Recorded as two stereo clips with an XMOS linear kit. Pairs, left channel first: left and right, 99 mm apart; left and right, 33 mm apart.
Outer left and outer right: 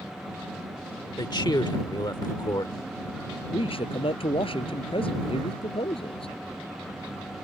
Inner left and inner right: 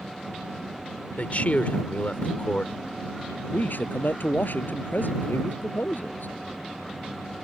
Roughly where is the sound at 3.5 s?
Left.